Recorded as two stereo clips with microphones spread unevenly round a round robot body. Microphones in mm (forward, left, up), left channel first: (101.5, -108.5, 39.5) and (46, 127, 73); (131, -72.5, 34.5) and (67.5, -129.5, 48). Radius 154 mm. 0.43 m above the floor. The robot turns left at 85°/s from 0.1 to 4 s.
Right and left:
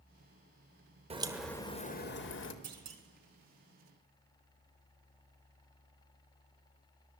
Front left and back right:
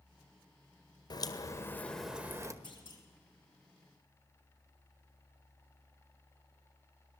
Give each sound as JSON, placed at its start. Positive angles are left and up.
{"t": 1.1, "sound": "a crack", "azimuth_deg": 35, "distance_m": 1.9}
{"t": 2.6, "sound": "a clunk", "azimuth_deg": 120, "distance_m": 2.0}